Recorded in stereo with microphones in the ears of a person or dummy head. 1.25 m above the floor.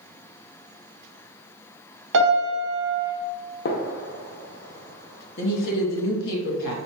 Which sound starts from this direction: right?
A piano, at 2.1 s.